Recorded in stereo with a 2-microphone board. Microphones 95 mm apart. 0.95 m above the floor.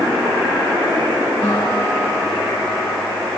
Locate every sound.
1.4 s a guitar: 10° left (ahead or behind), 8 m